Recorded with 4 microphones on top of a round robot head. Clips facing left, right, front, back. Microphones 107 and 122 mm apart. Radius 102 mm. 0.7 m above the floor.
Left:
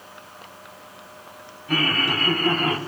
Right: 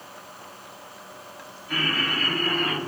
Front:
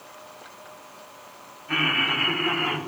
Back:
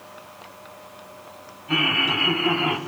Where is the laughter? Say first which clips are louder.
Left 4 dB, back 3 dB; 115° left, 4.5 m; by 2.8 s 120° left, 4 m.